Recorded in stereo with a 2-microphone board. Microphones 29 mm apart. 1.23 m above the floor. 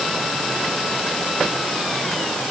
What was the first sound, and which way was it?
Only background noise.